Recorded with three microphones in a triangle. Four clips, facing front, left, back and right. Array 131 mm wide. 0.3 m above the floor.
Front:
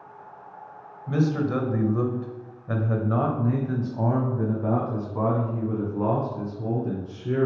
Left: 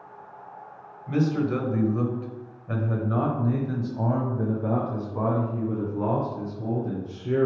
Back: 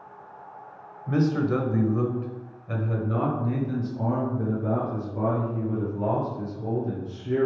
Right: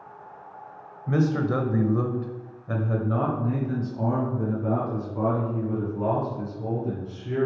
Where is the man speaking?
110° right, 1.1 m; by 7.5 s 30° left, 3 m.